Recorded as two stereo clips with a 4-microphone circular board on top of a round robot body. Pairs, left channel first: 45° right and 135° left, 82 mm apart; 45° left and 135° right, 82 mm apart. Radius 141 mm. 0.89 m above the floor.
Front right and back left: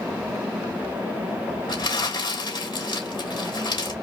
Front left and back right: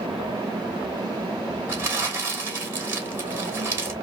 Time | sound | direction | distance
1.7 | crumpling | 70° right | 2.5 m